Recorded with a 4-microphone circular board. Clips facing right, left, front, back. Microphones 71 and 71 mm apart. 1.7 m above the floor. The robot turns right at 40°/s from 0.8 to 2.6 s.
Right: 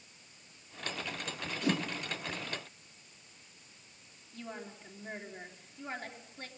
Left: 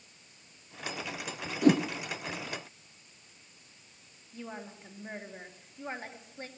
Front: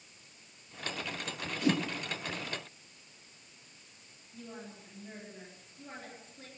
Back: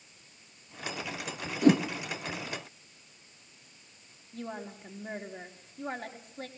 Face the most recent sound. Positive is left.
turn(degrees=165)